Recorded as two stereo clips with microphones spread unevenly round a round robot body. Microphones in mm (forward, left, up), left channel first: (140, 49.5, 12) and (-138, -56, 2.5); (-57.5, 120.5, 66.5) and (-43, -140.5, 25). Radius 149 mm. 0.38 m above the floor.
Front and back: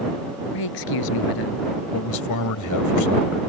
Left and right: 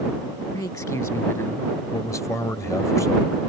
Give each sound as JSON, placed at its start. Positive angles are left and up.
{"t": 0.5, "sound": "a man speaking", "azimuth_deg": 15}
{"t": 1.9, "sound": "a man speaking", "azimuth_deg": 10}